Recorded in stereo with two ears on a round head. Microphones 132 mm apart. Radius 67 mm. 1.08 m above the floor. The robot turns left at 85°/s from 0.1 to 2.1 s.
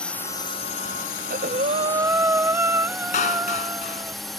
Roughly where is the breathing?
Right.